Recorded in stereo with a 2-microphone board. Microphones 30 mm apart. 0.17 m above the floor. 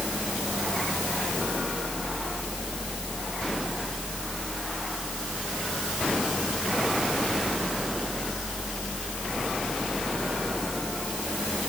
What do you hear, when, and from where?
Only background noise.